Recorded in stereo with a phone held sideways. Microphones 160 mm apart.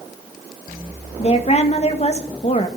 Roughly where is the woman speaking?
Left.